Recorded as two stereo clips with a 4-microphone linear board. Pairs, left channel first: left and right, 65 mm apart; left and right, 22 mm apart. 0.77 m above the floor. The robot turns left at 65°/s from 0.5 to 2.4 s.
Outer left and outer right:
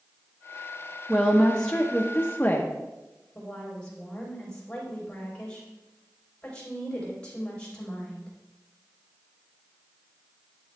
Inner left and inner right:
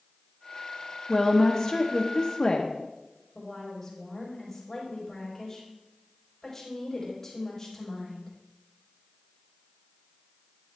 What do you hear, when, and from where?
1.1 s a woman speaking: 5° right (ahead or behind), 0.8 m; by 2.7 s 30° left (ahead or behind), 0.8 m
3.4 s a woman speaking: 15° left (ahead or behind), 4 m